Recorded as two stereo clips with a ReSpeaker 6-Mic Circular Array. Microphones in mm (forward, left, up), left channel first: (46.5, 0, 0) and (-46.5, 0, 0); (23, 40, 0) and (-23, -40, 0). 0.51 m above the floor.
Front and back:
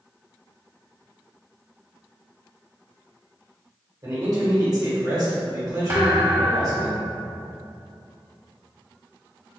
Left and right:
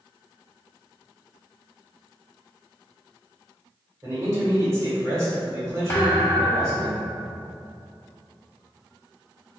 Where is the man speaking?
160° right, 1.7 m.